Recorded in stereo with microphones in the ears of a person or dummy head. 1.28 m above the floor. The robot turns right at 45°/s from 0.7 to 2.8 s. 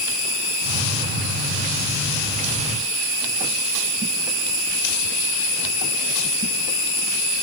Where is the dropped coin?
No dropped coin in this recording.